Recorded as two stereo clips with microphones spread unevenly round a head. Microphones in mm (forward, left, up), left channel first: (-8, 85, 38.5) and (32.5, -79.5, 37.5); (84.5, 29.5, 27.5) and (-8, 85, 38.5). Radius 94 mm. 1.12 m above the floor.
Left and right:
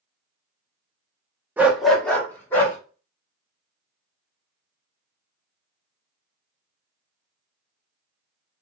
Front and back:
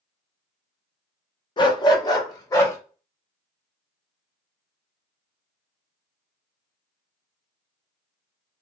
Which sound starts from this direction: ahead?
A dog barking, at 1.6 s.